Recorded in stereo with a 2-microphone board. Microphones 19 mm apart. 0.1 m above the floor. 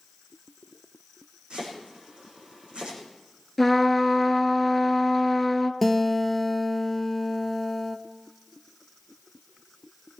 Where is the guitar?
5° left (ahead or behind), 0.9 m.